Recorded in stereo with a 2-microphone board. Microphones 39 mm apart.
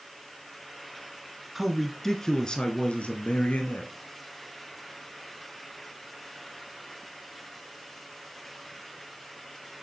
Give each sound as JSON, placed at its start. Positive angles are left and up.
{"t": 1.6, "sound": "a man speaking", "side_deg": -5, "distance_m": 1.3}